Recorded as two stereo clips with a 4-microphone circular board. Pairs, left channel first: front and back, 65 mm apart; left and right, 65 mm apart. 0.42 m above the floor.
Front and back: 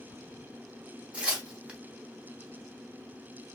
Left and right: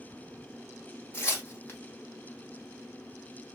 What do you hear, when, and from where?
1.1 s tearing paper: 115° left, 0.9 m